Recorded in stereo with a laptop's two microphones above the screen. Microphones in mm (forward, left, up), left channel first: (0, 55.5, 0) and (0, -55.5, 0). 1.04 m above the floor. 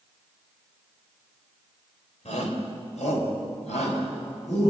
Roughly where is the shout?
Left.